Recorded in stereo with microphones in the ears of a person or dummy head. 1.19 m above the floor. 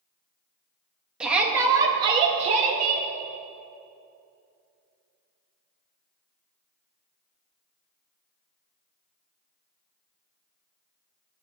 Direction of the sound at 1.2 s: 5° right (ahead or behind).